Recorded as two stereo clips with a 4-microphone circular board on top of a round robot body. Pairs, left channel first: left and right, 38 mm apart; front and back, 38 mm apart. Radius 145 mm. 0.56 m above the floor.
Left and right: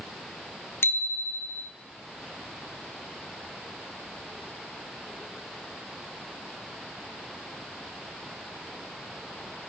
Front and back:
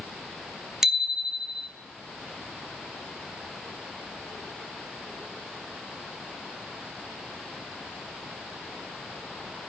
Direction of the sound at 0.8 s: 100° left.